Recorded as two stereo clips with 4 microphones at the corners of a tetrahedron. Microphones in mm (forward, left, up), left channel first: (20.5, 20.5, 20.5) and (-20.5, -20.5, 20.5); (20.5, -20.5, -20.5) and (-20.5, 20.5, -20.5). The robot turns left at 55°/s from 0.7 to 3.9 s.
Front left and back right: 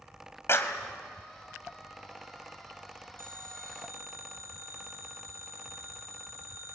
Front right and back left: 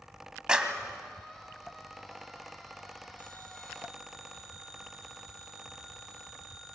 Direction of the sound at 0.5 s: 65° left.